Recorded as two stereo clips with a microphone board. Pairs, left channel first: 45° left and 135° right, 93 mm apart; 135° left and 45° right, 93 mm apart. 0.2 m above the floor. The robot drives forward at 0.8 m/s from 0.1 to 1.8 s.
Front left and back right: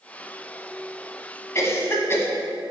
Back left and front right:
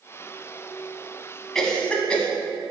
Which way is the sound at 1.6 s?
55° left.